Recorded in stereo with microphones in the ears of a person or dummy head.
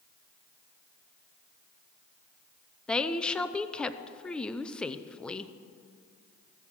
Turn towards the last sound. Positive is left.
turn(degrees=10)  # may be behind; listen again after turning